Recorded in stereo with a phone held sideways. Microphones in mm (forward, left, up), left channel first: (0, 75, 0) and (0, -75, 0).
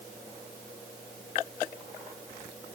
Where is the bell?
No bell in this recording.